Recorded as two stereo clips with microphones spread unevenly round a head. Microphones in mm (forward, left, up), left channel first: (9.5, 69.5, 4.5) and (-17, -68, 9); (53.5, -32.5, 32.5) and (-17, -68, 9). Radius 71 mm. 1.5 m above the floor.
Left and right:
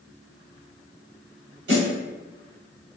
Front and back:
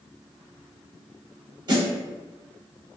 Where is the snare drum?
115° right, 1.5 m.